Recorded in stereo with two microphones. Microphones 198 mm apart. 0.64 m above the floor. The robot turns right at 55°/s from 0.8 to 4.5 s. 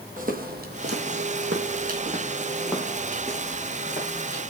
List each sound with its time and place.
0.2 s footsteps: 45° right (ahead or behind), 1.3 m; by 4.4 s 75° left (ahead or behind), 3.5 m